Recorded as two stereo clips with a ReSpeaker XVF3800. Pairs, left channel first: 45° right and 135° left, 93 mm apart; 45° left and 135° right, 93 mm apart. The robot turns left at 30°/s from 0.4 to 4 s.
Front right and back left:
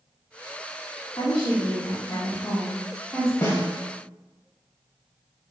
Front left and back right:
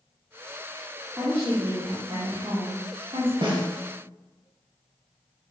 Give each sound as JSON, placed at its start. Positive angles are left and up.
{"t": 1.2, "sound": "a woman speaking", "azimuth_deg": -65, "distance_m": 2.0}
{"t": 3.4, "sound": "a snare drum", "azimuth_deg": -105, "distance_m": 2.5}